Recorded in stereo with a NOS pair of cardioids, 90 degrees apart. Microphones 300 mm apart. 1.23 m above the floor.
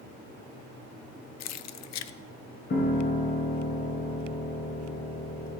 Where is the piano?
35° left, 4.5 m.